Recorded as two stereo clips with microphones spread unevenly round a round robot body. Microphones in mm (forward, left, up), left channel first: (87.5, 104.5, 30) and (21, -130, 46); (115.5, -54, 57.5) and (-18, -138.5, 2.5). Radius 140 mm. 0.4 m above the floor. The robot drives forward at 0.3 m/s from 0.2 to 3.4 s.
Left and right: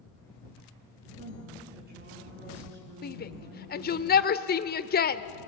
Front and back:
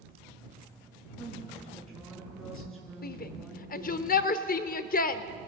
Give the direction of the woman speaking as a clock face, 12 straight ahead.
2 o'clock.